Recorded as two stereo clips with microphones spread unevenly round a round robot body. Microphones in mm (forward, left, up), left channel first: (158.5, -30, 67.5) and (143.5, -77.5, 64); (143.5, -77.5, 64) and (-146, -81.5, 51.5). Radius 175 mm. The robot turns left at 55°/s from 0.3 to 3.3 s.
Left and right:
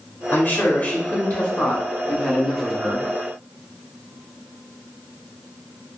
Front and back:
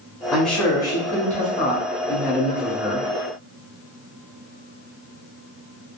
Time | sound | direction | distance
0.3 | a man speaking | 100° left | 1.1 m